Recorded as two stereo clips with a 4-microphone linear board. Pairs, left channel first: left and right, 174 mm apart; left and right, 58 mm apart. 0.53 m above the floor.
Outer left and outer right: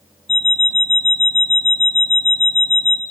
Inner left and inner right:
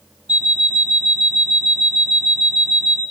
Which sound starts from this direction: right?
An alarm clock, at 0.3 s.